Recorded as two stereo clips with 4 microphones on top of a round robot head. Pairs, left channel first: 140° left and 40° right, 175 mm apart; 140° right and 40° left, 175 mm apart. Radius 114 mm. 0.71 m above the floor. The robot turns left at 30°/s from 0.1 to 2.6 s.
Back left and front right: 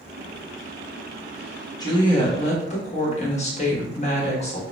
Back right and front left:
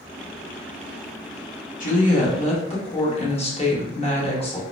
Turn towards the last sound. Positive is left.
turn(degrees=175)